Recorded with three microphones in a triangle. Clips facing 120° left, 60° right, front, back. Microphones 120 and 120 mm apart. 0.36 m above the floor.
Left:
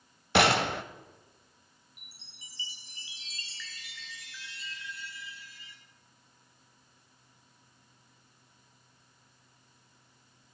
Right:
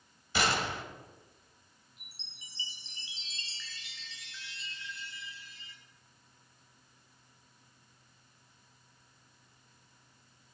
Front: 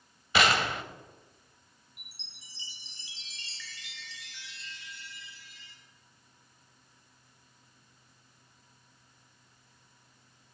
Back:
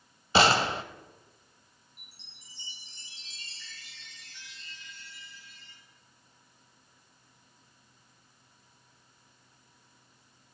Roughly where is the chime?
Ahead.